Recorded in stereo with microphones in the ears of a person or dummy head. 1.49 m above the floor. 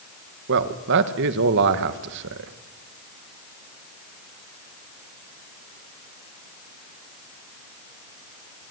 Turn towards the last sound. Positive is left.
turn(degrees=-60)  # may be behind; listen again after turning